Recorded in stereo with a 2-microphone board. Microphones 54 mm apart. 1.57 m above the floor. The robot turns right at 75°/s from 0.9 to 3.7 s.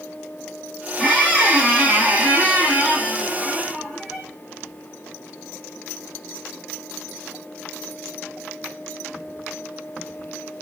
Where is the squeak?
170° left, 1.2 m; by 4.3 s 15° left, 1.2 m.